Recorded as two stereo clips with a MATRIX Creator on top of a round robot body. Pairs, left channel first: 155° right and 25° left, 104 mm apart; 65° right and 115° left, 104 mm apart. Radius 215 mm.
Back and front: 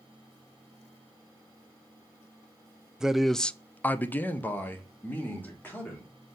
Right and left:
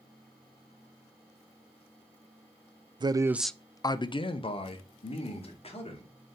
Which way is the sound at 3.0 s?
105° left.